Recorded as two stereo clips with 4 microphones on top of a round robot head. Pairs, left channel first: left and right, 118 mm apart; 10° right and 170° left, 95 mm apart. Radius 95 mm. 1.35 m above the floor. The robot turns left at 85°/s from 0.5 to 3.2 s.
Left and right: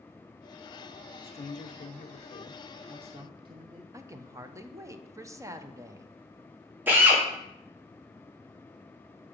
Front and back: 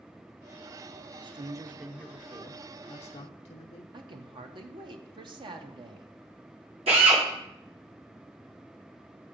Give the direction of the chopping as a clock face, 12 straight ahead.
I don't hear chopping.